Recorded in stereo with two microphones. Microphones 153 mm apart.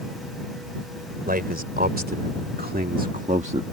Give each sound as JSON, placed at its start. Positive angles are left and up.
{"t": 1.3, "sound": "a man speaking", "side_deg": -80}